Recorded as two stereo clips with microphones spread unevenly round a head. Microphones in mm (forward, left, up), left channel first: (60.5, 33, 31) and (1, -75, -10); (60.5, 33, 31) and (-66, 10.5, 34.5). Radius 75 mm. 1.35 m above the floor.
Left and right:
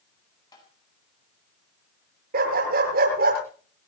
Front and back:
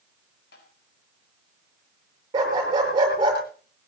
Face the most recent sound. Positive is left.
turn(degrees=-105)